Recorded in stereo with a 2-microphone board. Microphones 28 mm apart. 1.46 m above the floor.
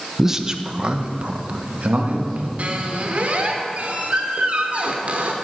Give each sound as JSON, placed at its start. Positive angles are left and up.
{"t": 0.2, "sound": "a man speaking", "side_deg": -10, "distance_m": 0.8}
{"t": 2.6, "sound": "a squeak", "side_deg": -50, "distance_m": 1.4}